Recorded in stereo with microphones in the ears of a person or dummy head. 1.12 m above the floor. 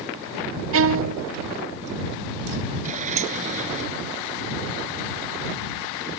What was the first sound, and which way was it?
A violin, 65° right (ahead or behind).